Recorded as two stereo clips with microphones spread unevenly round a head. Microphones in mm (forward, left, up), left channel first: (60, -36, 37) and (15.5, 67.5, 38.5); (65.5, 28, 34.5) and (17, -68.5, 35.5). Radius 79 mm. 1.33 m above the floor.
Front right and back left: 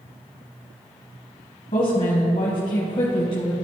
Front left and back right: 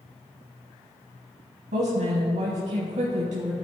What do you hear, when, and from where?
1.7 s a woman speaking: 115° right, 1.4 m